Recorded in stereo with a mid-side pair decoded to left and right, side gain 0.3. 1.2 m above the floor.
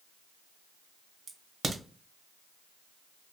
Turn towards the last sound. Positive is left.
turn(degrees=-60)